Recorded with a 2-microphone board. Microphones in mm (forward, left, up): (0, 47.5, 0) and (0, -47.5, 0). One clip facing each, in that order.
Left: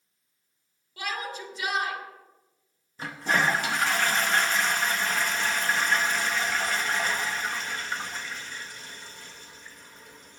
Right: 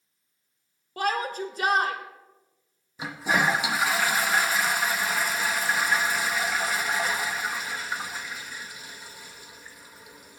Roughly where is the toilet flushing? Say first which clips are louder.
Right 1 dB; centre.